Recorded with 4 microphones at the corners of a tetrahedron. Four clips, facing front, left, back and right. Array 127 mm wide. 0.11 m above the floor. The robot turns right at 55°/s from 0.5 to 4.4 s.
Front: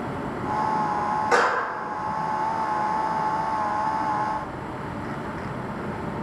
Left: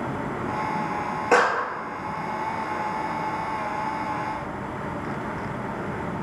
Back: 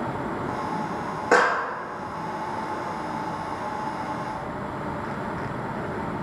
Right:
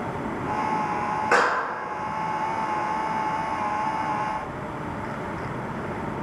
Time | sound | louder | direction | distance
1.3 | a clap | left 2 dB, back 3 dB | 170° left | 1.3 m